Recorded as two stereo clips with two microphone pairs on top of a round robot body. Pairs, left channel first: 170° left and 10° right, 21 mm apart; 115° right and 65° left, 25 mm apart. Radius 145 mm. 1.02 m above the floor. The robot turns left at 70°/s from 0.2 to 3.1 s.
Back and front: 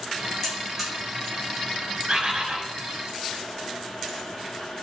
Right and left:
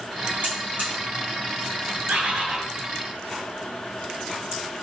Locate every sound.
0.4 s a buzzer: 100° left, 1.6 m; by 0.9 s 65° left, 1.6 m
2.1 s a bird: 40° left, 0.7 m; by 2.6 s straight ahead, 0.7 m